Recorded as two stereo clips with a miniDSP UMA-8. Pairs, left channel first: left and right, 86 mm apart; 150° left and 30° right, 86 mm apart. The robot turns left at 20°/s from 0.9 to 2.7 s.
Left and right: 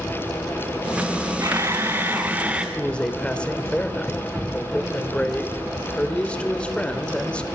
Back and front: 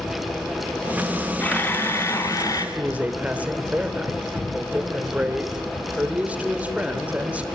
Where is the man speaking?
25° left, 1.6 m.